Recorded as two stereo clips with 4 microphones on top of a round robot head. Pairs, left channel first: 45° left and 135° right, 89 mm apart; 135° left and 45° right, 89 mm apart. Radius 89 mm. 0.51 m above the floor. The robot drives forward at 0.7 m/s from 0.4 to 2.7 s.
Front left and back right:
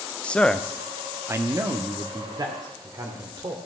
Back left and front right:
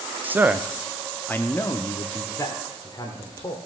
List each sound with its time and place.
0.2 s a man speaking: 15° right, 0.7 m; by 3.5 s straight behind, 1.5 m